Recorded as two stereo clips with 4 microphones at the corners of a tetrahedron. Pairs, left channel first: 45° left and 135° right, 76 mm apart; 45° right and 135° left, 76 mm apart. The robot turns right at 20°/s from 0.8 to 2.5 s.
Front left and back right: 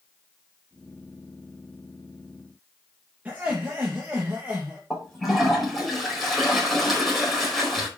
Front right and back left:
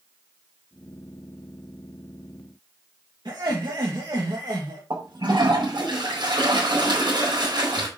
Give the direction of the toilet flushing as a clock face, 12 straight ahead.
7 o'clock.